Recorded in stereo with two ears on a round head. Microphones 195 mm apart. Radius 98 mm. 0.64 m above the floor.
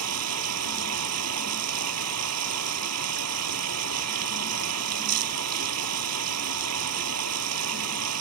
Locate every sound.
0.0 s running water: 80° right